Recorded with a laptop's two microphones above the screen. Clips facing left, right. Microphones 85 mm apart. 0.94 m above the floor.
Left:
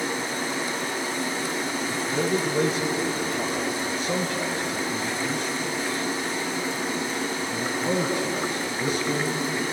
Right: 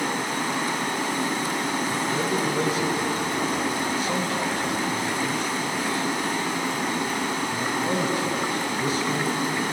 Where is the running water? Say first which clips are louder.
Right 2 dB; 60° right (ahead or behind), 1.9 m.